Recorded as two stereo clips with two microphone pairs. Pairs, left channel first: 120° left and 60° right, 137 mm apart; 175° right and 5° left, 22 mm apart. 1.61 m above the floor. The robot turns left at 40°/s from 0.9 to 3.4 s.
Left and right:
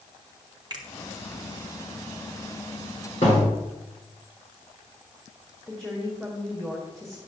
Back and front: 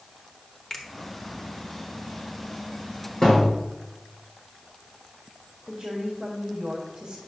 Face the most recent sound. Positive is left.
turn(degrees=30)